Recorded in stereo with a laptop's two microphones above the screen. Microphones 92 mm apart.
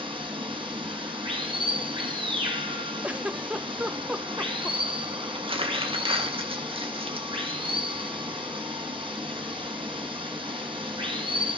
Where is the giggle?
15° right (ahead or behind), 0.7 m.